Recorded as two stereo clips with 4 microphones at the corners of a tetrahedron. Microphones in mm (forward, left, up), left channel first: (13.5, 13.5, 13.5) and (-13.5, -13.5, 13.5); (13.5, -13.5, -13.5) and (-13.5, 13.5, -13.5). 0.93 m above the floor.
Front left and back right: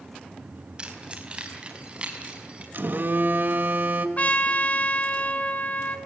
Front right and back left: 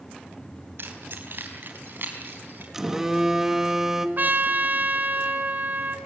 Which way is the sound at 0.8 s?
160° left.